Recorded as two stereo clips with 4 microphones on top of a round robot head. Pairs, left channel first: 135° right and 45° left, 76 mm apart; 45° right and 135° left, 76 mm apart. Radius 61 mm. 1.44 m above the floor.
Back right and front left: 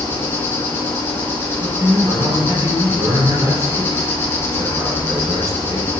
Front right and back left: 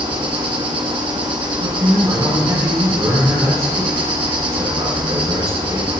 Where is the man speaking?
95° left, 6 m.